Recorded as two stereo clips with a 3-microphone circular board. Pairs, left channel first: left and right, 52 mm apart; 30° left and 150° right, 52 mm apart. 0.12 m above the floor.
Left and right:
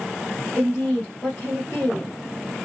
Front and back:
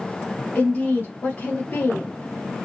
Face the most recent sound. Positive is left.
turn(degrees=20)